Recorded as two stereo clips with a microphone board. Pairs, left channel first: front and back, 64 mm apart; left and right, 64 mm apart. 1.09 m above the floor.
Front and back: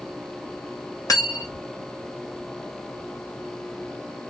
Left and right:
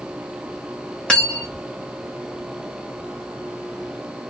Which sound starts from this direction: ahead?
Cutlery clinking, at 1.1 s.